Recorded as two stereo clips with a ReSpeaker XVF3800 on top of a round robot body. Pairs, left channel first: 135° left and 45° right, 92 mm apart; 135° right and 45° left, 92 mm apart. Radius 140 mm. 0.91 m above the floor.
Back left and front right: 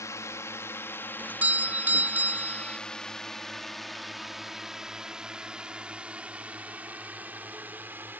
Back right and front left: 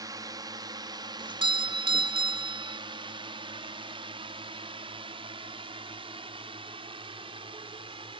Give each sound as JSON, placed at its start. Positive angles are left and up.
{"t": 0.0, "sound": "a drone", "azimuth_deg": 85}
{"t": 1.2, "sound": "a doorbell", "azimuth_deg": 25}